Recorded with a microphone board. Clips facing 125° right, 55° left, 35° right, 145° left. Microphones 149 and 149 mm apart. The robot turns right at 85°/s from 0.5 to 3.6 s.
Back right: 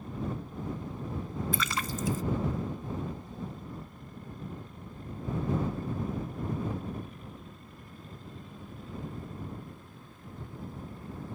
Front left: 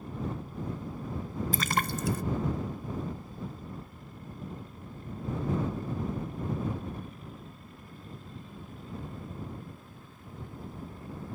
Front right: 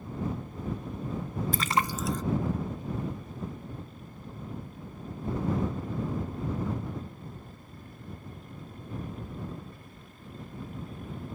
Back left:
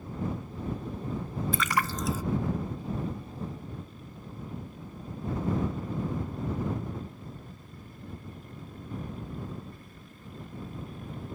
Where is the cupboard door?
No cupboard door in this recording.